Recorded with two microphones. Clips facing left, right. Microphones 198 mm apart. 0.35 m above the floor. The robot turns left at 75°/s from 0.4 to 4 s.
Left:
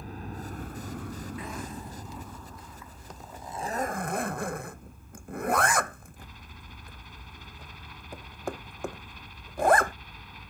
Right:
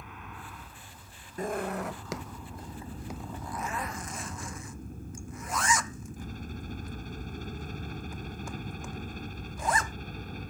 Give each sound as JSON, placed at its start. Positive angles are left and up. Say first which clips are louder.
{"t": 0.0, "sound": "a helicopter", "louder": "left 7 dB", "azimuth_deg": 140}
{"t": 1.4, "sound": "a zipper", "louder": "right 6 dB", "side_deg": -40}